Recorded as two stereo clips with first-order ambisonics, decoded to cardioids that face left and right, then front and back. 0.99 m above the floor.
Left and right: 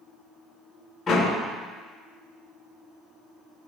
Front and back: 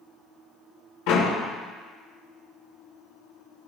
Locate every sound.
1.1 s a door slam: 20° left, 2.5 m